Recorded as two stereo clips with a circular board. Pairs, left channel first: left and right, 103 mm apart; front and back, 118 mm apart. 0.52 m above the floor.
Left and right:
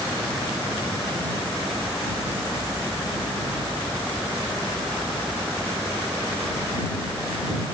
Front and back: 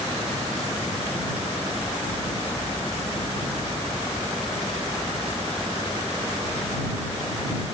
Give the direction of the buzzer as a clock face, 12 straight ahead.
I don't hear a buzzer.